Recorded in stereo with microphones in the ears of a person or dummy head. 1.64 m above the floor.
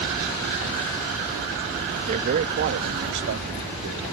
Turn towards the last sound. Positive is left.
turn(degrees=-75)  # may be behind; listen again after turning